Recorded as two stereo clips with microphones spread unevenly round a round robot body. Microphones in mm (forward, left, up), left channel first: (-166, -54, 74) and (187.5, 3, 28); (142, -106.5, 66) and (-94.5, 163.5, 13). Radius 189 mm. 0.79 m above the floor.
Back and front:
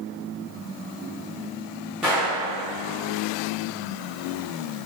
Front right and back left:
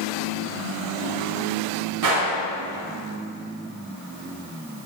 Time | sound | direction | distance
2.0 | a gunshot | 95° left | 4 m